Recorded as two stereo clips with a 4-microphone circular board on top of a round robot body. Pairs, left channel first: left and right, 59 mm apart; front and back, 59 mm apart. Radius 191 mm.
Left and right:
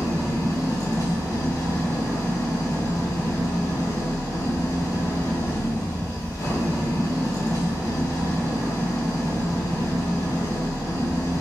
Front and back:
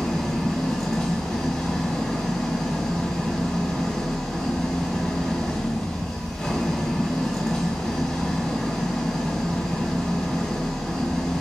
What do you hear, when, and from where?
0.0 s an engine running: 85° left, 3 m